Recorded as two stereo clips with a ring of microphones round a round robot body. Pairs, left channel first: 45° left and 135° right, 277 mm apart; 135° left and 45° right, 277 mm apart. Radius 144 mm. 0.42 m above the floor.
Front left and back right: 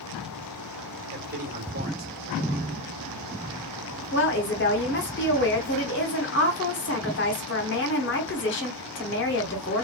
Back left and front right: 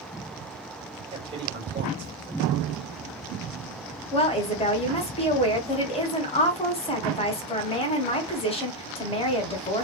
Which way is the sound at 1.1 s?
105° right.